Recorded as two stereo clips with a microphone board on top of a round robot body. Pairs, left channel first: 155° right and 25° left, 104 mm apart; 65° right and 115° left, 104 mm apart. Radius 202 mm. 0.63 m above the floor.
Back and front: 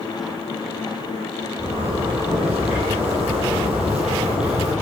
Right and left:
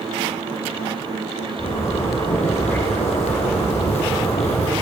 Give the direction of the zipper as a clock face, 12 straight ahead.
2 o'clock.